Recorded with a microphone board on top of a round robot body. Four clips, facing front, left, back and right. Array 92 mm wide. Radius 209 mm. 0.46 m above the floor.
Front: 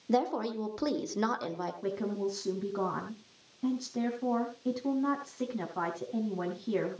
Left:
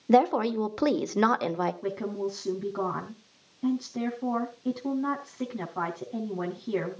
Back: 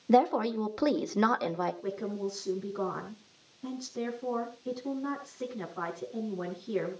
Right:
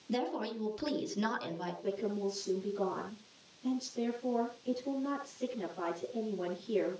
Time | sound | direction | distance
0.1 | a woman speaking | 110° left | 2 m
1.8 | a woman speaking | 55° left | 4.5 m